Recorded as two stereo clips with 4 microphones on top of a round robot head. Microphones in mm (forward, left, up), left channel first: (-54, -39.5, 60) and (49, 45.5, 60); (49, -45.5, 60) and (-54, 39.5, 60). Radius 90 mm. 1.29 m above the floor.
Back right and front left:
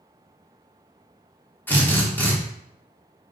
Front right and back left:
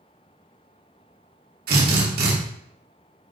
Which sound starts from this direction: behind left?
A drill, at 1.7 s.